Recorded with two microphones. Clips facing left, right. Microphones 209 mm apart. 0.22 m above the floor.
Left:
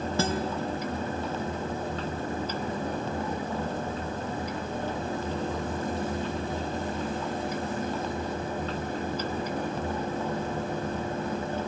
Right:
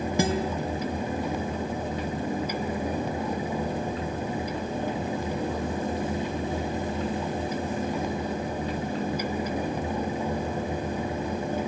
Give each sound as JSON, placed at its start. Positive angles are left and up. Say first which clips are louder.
{"t": 0.2, "sound": "a guitar", "louder": "right 3 dB", "side_deg": -15, "distance_m": 1.4}